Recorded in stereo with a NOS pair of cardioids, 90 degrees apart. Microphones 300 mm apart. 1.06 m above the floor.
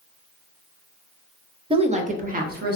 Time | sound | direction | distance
1.7 | a woman speaking | 20° right | 0.7 m